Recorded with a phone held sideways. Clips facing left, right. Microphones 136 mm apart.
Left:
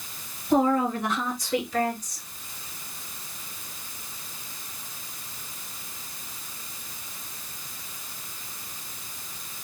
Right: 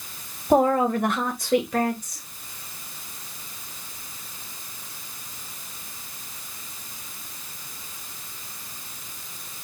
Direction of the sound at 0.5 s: 50° right (ahead or behind).